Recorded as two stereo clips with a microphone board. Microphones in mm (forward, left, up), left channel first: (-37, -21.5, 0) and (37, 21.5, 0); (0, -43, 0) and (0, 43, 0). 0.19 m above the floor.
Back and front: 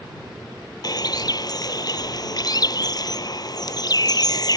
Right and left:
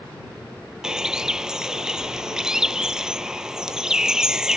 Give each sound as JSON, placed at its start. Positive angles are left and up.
{"t": 0.8, "sound": "a bird", "azimuth_deg": 175}